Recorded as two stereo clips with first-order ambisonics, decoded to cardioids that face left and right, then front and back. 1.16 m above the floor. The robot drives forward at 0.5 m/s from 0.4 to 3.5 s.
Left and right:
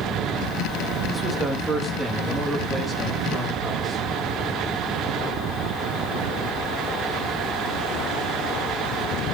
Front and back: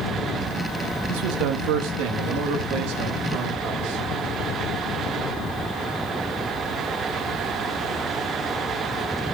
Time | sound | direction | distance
1.1 | a man speaking | 170° right | 1.3 m